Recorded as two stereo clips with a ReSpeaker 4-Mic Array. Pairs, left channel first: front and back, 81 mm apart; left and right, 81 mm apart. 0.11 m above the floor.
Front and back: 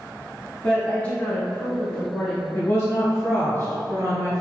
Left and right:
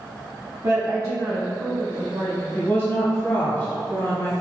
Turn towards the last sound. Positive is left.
turn(degrees=50)